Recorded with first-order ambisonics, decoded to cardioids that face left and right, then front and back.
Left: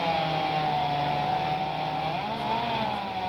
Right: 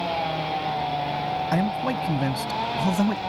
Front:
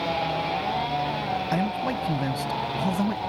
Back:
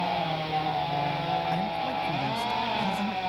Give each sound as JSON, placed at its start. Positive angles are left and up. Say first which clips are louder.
{"t": 1.5, "sound": "a man speaking", "louder": "right 3 dB, front 2 dB", "azimuth_deg": -65}